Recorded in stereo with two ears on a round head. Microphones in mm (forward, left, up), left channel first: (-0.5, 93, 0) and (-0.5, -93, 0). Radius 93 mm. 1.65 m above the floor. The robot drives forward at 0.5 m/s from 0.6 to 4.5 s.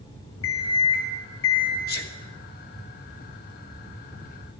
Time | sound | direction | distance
0.4 | an alarm clock | 65° left (ahead or behind) | 1.8 m
1.9 | a sneeze | 50° left (ahead or behind) | 1.2 m